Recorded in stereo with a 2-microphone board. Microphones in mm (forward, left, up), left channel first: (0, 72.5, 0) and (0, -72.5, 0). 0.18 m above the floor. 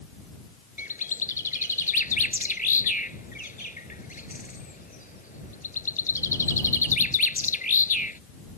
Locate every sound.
0.8 s a bird: 75° left (ahead or behind)